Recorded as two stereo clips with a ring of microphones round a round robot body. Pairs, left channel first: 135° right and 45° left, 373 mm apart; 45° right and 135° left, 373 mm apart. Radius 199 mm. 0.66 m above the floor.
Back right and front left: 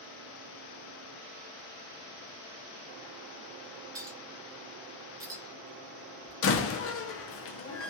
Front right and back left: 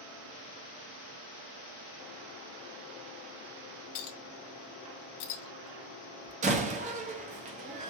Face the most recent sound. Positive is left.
turn(degrees=-165)